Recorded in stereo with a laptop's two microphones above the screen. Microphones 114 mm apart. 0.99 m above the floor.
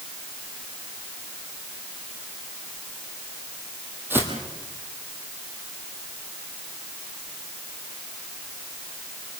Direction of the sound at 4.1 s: 20° right (ahead or behind).